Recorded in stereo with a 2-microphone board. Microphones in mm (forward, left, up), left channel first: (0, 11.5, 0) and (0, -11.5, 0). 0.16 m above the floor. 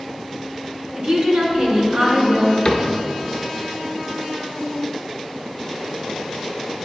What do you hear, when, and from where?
0.9 s a woman speaking: 45° right (ahead or behind), 1.9 m
2.6 s a cupboard door: 35° left (ahead or behind), 0.9 m